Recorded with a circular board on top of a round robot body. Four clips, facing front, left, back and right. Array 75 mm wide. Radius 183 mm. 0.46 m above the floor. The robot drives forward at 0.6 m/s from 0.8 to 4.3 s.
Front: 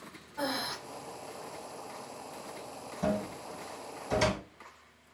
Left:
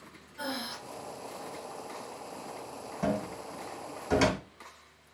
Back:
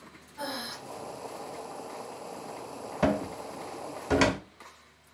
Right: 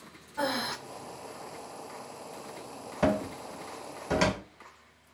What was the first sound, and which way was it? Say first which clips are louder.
Breathing: right 6 dB, front 2 dB; 75° right.